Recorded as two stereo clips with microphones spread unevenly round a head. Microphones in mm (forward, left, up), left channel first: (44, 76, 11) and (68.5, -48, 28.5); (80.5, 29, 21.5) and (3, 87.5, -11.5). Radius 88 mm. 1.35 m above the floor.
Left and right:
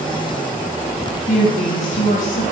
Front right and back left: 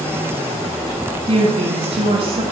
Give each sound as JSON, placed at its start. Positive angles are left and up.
{"t": 1.3, "sound": "a woman speaking", "azimuth_deg": 140, "distance_m": 1.7}